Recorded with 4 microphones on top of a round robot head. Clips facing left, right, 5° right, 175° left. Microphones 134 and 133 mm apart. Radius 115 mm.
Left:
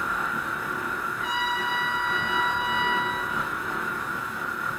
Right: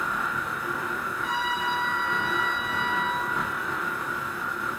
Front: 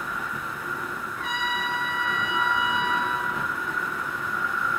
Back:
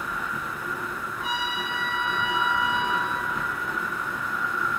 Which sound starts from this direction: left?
A trumpet, at 1.1 s.